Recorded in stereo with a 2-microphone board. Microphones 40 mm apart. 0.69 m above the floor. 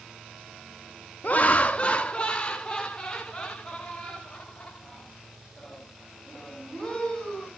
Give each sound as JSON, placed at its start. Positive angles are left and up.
{"t": 1.2, "sound": "laughter", "side_deg": 40, "distance_m": 0.5}